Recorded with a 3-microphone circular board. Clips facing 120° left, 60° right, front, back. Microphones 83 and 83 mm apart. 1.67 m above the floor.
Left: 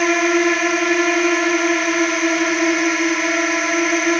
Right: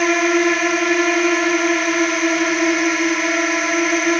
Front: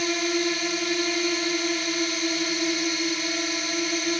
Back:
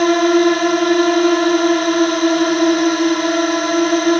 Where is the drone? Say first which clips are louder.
Even, back 14 dB; 150° right.